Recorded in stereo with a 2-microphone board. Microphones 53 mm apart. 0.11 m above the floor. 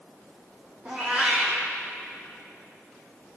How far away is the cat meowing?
About 2.5 m.